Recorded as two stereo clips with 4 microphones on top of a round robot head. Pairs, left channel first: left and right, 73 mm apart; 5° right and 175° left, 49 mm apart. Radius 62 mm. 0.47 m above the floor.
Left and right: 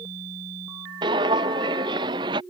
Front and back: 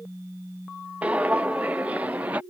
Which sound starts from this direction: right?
Footsteps, at 1.0 s.